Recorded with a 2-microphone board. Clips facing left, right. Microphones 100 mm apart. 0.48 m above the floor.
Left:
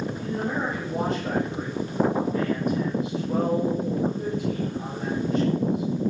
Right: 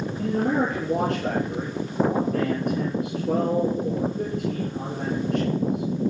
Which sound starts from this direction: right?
A man speaking, at 0.2 s.